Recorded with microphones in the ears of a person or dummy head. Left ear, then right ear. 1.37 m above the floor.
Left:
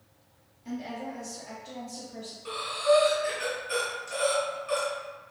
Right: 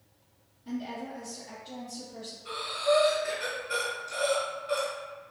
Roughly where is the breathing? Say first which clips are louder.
Left 3 dB; left.